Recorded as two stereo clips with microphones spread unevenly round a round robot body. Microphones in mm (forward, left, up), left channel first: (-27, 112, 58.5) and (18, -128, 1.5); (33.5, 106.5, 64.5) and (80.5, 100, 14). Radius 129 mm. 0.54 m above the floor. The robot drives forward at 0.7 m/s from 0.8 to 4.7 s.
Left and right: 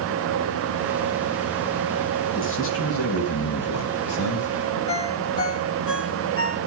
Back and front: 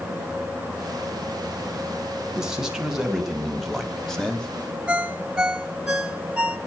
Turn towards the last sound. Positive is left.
turn(degrees=60)